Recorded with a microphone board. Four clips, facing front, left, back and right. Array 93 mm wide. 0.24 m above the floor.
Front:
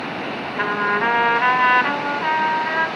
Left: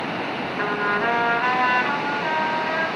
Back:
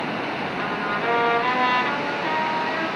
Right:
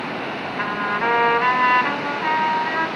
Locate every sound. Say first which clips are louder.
0.6 s a trumpet: even, front 8 dB; 20° right, 1.9 m